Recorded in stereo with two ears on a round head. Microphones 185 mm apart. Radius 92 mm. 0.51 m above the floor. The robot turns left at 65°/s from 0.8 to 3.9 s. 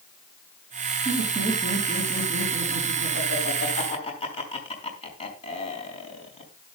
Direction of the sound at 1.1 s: 30° right (ahead or behind).